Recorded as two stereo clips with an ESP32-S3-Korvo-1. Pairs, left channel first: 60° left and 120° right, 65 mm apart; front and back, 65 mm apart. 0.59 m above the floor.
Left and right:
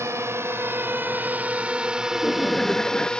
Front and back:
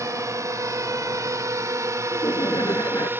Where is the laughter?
15° right.